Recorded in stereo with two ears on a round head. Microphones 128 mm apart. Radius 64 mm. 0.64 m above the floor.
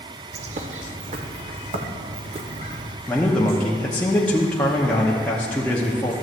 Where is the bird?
50° right (ahead or behind), 0.7 m.